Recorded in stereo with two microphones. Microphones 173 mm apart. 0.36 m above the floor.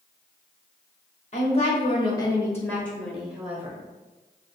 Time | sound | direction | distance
1.3 | a woman speaking | 45° left (ahead or behind) | 1.2 m